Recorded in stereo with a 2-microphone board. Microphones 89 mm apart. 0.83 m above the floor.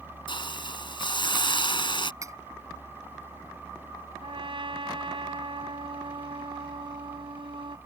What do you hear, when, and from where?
0.3 s a hiss: 65° left (ahead or behind)
2.2 s cutlery clinking: 35° right (ahead or behind)
4.2 s a trumpet: 70° right (ahead or behind)